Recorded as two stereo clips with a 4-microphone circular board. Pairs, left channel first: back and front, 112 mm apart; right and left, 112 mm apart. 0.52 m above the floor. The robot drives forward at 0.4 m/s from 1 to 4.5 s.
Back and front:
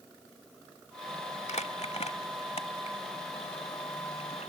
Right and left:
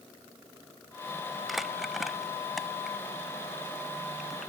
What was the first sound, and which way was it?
Crumpling, straight behind.